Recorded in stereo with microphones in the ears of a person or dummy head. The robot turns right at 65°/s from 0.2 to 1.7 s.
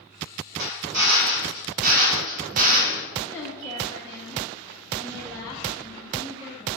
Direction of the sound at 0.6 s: 125° right.